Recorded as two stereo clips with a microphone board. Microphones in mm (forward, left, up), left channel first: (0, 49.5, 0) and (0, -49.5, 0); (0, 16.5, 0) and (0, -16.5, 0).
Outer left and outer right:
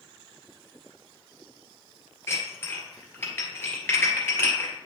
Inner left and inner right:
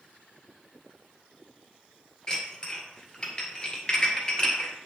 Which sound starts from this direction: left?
Dishes clattering, at 2.3 s.